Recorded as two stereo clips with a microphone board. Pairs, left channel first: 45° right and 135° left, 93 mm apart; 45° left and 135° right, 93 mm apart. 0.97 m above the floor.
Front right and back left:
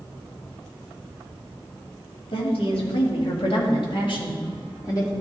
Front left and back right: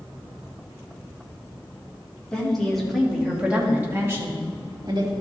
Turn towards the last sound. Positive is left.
turn(degrees=-95)